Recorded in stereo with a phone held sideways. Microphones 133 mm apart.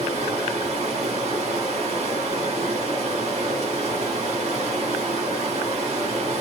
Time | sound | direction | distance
0.0 | running water | 50° right (ahead or behind) | 1.8 m